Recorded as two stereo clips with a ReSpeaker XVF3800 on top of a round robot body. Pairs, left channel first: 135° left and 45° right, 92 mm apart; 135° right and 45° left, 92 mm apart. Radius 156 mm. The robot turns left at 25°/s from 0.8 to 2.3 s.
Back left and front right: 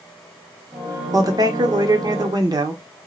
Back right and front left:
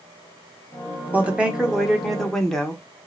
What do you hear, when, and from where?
1.1 s a woman speaking: 20° right, 1.0 m; by 2.8 s 50° right, 1.0 m